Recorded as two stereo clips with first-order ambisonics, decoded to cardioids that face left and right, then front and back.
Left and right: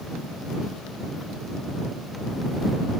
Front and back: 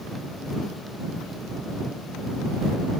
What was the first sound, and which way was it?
Only background noise.